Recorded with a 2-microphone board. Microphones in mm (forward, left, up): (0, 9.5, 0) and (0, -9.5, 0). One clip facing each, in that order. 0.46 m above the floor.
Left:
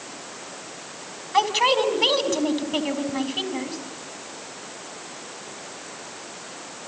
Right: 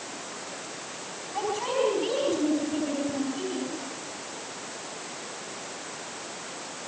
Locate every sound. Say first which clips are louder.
1.3 s a man speaking: left 9 dB; 70° left (ahead or behind), 4 m